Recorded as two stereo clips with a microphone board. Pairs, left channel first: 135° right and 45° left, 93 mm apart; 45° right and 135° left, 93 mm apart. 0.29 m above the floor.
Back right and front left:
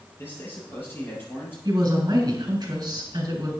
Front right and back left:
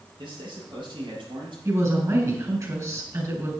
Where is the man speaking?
160° left, 6 m.